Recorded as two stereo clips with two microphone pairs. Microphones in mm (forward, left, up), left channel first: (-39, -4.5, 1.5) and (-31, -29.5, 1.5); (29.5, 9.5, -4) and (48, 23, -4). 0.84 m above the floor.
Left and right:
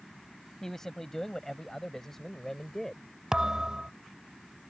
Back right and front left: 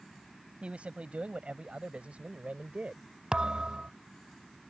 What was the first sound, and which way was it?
A man speaking, 35° left.